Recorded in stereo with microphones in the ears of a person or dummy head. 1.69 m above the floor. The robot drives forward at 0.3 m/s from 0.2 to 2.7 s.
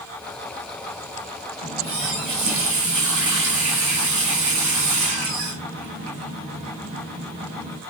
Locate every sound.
1.6 s a running tap: 65° right (ahead or behind), 1.8 m